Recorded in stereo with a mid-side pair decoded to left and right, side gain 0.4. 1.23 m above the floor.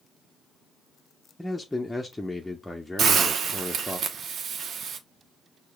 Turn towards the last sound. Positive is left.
turn(degrees=-65)